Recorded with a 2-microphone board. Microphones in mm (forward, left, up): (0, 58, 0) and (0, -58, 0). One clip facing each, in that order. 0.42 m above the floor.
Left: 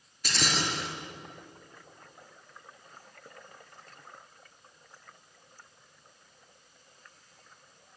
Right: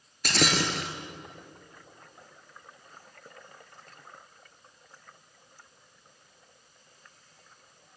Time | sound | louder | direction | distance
0.2 | breaking glass | right 5 dB | 60° right (ahead or behind) | 2 m